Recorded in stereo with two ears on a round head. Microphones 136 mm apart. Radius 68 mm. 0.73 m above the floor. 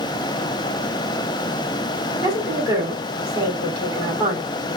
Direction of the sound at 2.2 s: 25° right (ahead or behind).